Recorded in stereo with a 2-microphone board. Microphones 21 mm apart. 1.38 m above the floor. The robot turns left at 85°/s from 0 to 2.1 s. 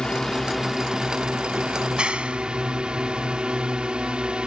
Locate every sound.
0.0 s a drone: 40° left (ahead or behind); by 4.5 s 50° right (ahead or behind)
1.8 s a clap: 40° right (ahead or behind); by 3.4 s 65° right (ahead or behind)